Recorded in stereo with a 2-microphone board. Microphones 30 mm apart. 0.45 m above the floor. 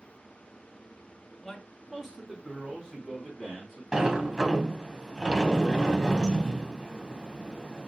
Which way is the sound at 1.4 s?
10° left (ahead or behind).